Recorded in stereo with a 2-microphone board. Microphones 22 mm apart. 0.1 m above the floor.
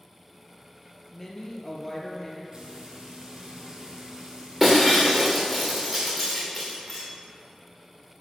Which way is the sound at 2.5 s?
35° right (ahead or behind).